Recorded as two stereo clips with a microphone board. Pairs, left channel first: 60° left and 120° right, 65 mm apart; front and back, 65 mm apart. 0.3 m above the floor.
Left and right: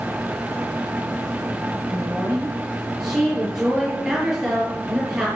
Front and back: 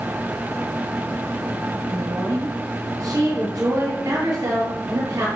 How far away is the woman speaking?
About 7.5 m.